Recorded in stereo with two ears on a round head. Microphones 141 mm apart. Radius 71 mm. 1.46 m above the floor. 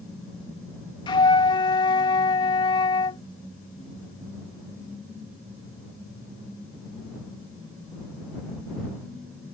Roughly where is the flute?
Left.